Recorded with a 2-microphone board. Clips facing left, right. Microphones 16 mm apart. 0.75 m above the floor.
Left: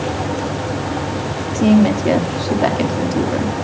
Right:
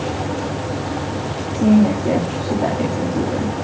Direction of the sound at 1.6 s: 55° left (ahead or behind).